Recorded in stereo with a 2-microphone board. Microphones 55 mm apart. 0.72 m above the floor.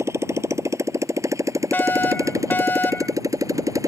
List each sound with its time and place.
0.0 s a motorcycle: 60° right (ahead or behind); by 3.9 s 85° right
1.7 s a fire alarm: 35° left (ahead or behind)